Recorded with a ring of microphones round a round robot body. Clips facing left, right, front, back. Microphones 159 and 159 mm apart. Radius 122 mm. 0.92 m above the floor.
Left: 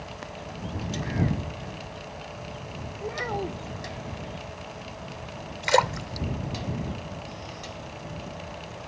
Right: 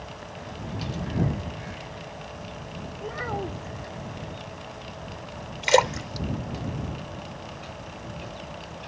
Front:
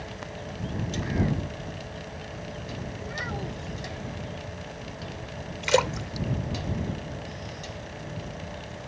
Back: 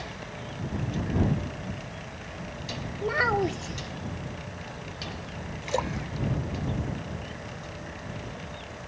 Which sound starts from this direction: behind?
A child speaking, at 3.0 s.